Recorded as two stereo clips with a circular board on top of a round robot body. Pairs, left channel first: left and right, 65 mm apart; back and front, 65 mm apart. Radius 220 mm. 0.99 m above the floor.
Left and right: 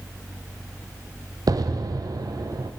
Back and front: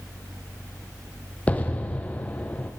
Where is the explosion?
110° right, 0.5 m.